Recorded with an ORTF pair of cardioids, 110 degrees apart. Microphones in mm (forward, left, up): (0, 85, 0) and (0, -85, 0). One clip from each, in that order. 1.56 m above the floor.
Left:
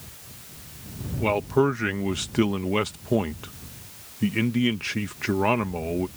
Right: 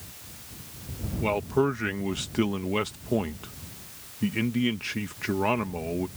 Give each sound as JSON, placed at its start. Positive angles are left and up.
{"t": 1.2, "sound": "a man speaking", "azimuth_deg": 15}